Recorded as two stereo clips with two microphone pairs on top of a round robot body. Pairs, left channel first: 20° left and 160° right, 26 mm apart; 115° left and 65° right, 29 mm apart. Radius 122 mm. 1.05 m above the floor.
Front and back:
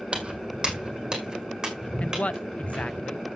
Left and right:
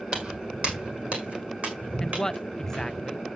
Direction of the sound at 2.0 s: 50° left.